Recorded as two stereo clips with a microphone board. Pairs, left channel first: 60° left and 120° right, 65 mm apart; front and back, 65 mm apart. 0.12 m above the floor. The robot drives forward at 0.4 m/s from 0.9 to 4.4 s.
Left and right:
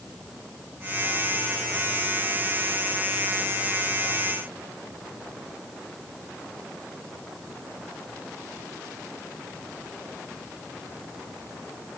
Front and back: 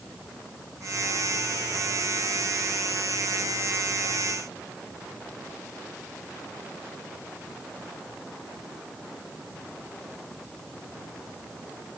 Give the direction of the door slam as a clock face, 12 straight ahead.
No door slam in this recording.